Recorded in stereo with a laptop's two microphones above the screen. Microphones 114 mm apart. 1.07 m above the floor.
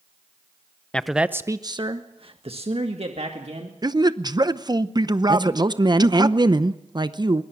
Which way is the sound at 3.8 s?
35° right (ahead or behind).